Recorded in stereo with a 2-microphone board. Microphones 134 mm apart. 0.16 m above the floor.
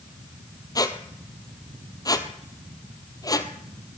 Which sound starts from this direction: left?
A squeak, at 0.8 s.